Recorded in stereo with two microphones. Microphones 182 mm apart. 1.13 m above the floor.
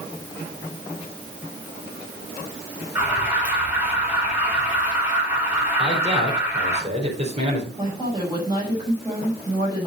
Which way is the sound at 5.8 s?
35° right (ahead or behind).